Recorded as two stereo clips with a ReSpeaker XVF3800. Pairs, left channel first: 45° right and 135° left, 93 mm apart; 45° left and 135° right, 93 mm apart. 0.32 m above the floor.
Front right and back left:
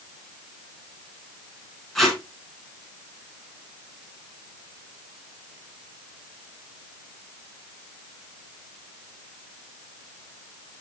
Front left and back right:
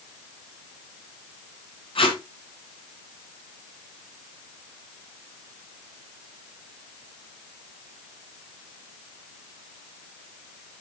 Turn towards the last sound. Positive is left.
turn(degrees=45)